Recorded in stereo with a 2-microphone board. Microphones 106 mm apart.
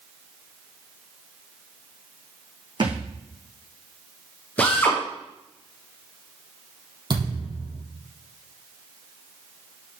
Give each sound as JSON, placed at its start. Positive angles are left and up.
{"t": 2.8, "sound": "a thud", "side_deg": -45, "distance_m": 3.5}
{"t": 4.6, "sound": "a drill", "side_deg": 15, "distance_m": 7.5}
{"t": 7.1, "sound": "a thud", "side_deg": -40, "distance_m": 5.0}